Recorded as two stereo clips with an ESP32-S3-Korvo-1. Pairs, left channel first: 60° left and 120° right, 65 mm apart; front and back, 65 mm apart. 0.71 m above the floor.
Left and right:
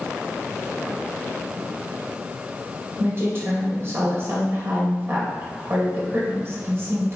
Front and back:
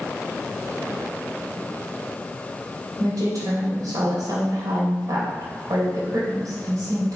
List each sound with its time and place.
3.0 s a woman speaking: 165° right, 2.5 m